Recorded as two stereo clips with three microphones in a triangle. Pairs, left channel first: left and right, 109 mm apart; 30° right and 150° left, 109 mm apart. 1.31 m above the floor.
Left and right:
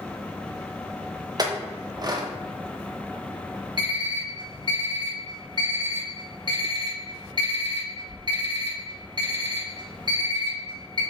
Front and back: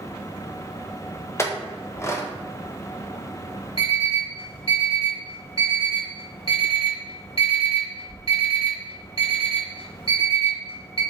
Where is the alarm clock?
45° right, 1.2 m.